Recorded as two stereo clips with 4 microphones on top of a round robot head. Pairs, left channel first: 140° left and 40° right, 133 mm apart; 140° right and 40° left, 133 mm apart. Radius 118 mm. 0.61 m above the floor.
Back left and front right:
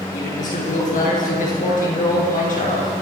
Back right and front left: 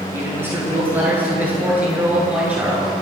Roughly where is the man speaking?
Left.